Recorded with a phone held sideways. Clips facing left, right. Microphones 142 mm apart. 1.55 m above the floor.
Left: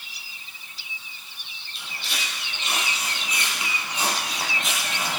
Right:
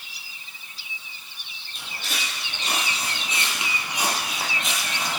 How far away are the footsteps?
About 2.5 m.